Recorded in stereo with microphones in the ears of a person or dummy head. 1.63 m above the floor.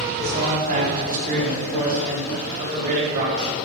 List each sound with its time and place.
0.2 s a man speaking: 45° right (ahead or behind), 5 m